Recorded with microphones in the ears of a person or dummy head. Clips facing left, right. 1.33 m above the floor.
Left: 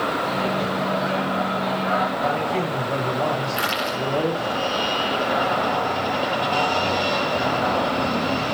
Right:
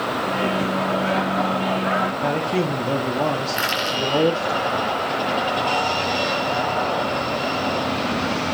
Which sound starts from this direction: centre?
Crushing, at 3.5 s.